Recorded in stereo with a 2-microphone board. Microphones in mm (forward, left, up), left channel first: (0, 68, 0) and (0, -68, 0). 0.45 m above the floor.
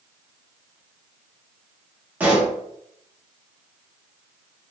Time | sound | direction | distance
2.2 | a pop | 10° right (ahead or behind) | 1.0 m